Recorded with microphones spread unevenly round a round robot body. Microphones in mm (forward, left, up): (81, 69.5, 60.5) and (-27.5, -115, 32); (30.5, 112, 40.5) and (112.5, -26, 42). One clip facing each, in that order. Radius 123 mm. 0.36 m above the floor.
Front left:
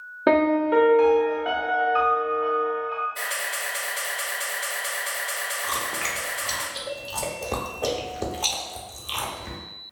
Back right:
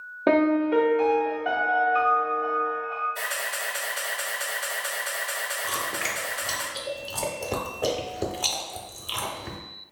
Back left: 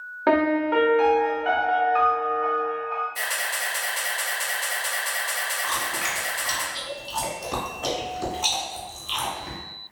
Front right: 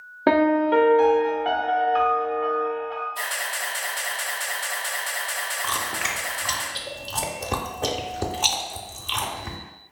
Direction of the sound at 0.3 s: 20° right.